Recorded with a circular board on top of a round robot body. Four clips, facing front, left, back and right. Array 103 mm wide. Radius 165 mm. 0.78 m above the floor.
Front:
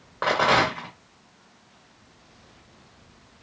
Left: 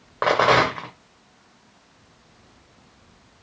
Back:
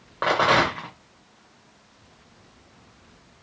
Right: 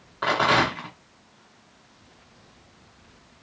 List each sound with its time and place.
0.2 s a rattle: 95° left, 0.7 m